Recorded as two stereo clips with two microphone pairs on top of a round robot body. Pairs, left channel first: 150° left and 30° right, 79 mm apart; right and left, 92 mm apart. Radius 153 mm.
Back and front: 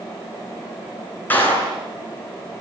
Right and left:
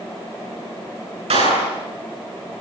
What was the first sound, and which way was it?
A clap, 80° left.